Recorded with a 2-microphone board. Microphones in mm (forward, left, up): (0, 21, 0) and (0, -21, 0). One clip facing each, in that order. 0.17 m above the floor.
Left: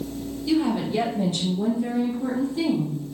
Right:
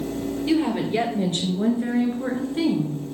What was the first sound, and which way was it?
A woman speaking, 40° right (ahead or behind).